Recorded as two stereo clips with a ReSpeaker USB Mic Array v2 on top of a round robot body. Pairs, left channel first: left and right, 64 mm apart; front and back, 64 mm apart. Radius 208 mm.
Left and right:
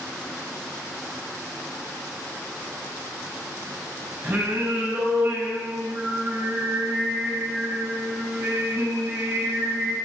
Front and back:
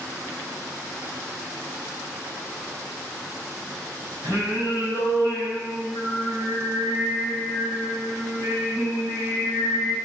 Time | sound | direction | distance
4.2 | singing | 150° right | 6 m